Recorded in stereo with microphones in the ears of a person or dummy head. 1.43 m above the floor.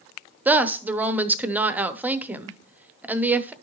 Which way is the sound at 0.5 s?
10° right (ahead or behind).